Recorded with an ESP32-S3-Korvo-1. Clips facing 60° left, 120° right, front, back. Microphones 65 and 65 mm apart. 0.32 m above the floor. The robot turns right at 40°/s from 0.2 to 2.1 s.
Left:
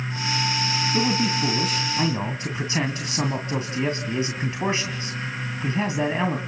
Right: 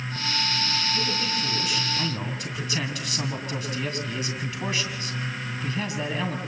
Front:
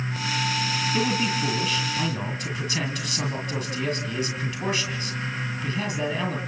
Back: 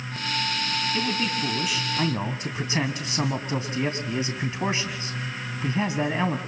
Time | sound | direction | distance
0.9 | a man speaking | 75° left | 2 m